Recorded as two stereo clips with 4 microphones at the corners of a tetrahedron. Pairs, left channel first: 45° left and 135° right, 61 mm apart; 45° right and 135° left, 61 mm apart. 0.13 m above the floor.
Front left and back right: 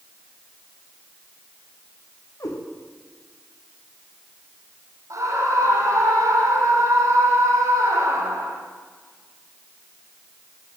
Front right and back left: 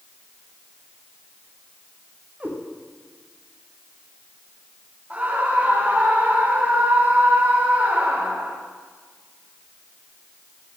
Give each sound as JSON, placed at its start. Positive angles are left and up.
{"t": 2.4, "sound": "a cat meowing", "azimuth_deg": 70, "distance_m": 8.0}
{"t": 5.1, "sound": "a scream", "azimuth_deg": -165, "distance_m": 7.0}